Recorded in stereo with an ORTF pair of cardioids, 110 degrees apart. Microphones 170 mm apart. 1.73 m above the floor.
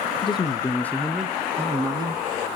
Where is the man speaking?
30° left, 1.1 m; by 2.2 s 30° right, 1.3 m.